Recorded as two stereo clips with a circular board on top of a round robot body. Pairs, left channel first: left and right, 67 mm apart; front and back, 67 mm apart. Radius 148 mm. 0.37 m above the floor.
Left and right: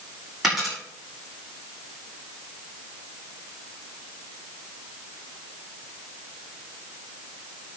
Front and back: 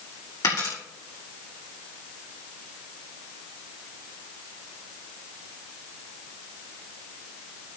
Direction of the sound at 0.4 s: 5° right.